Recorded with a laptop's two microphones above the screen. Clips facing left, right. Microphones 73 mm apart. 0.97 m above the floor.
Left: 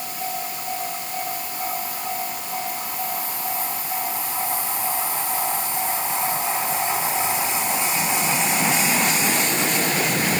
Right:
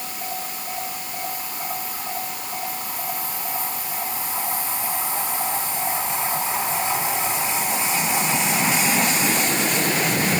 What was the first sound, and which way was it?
Only background noise.